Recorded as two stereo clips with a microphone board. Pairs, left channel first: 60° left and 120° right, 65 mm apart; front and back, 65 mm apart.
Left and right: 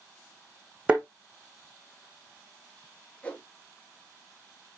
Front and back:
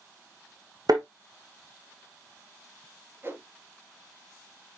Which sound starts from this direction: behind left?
A whoosh, at 3.2 s.